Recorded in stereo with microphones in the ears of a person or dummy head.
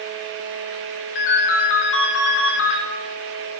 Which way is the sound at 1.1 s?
65° left (ahead or behind).